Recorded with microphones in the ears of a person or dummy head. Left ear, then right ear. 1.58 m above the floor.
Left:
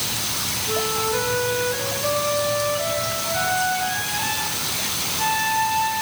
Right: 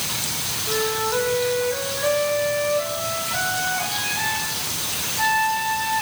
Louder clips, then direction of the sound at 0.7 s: Right 1 dB; 35° right (ahead or behind).